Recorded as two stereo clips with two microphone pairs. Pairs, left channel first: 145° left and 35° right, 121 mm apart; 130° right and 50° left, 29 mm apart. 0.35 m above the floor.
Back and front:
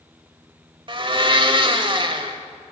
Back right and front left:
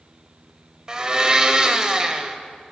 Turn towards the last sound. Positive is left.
turn(degrees=-5)